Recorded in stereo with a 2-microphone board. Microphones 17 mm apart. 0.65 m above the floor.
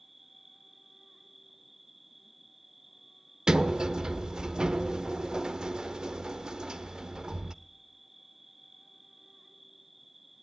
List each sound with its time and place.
0.0 s an insect: 15° right (ahead or behind), 2 m
3.5 s a sliding door: 40° right (ahead or behind), 0.5 m